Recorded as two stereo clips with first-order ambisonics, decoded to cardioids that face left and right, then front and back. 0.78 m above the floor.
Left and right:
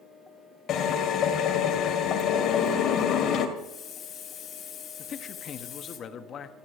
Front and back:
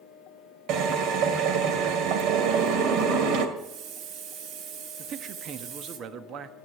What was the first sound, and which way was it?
A drill, 145° left.